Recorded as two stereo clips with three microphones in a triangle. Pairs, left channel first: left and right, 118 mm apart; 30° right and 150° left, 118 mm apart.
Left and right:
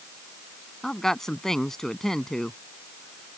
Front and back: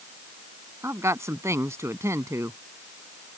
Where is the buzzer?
No buzzer in this recording.